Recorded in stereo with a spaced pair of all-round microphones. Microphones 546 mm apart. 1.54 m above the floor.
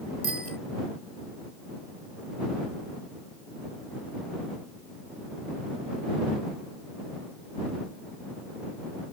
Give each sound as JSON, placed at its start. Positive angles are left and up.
{"t": 0.2, "sound": "a bicycle bell", "side_deg": 80}